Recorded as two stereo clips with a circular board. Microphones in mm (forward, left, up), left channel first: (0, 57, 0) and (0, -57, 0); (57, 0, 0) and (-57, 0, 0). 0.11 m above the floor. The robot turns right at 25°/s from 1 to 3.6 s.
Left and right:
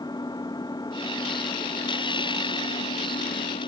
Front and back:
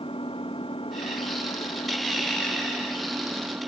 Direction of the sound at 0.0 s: 35° left.